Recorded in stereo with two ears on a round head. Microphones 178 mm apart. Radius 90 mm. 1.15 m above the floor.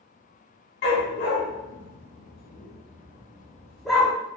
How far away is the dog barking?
About 1.2 m.